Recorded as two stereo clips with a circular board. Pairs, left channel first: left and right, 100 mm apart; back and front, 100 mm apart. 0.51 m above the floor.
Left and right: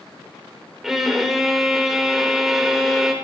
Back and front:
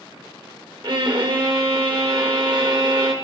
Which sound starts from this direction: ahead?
A violin, at 0.8 s.